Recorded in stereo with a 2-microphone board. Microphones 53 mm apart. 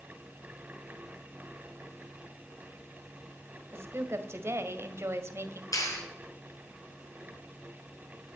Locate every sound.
3.7 s a woman speaking: 50° right (ahead or behind), 1.7 m
5.7 s a clap: 80° left, 4 m